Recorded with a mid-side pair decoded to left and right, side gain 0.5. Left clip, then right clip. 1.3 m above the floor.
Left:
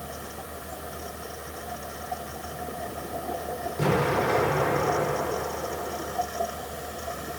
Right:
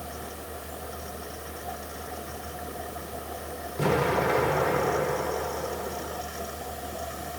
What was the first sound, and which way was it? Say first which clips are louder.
A fan: left 1 dB; 20° left.